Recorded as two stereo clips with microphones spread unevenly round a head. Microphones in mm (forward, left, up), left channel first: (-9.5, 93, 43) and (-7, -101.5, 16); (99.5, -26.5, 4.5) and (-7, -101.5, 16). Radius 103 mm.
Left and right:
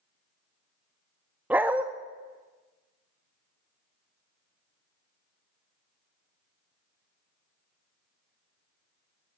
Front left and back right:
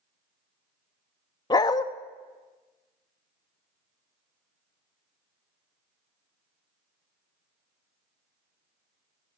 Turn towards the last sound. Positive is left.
turn(degrees=0)